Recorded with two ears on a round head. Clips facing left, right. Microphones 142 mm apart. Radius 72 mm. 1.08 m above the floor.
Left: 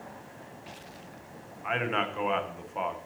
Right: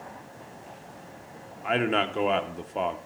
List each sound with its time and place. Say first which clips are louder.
1.6 s a man speaking: right 5 dB; 40° right (ahead or behind), 0.8 m